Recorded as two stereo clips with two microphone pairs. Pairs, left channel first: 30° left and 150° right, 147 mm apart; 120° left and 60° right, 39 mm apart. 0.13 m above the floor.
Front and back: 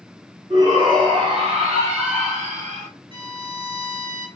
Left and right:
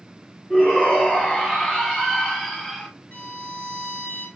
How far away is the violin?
About 1.3 m.